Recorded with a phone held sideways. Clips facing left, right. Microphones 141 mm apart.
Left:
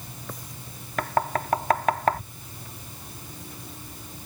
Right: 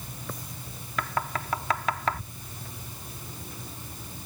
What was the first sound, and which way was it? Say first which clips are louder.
Knocking: left 6 dB; 50° left (ahead or behind).